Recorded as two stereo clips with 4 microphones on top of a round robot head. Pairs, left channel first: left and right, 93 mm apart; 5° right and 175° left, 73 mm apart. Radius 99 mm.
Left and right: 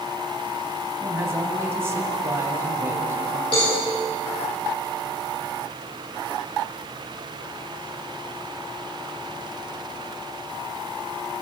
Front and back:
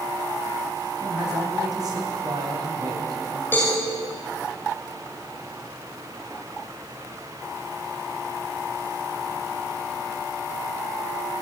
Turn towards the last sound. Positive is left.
turn(degrees=50)